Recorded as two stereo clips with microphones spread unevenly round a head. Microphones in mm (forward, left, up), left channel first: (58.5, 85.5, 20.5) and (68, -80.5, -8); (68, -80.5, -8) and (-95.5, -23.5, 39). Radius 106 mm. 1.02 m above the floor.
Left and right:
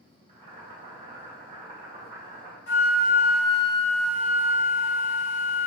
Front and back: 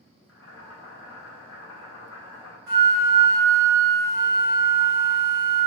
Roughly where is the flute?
Left.